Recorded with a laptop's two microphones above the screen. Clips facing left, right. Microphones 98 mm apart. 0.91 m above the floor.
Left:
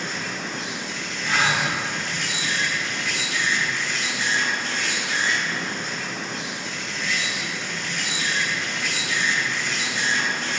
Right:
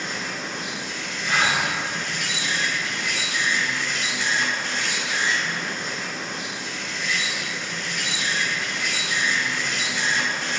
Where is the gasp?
65° right (ahead or behind), 1.6 m.